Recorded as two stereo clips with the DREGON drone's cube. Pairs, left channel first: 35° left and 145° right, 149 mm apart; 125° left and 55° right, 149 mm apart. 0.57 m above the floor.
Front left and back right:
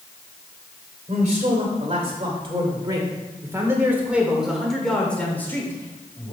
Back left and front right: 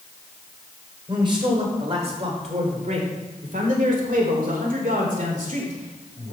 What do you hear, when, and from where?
1.1 s a man speaking: 110° right, 2.5 m; by 6.3 s 30° right, 2.5 m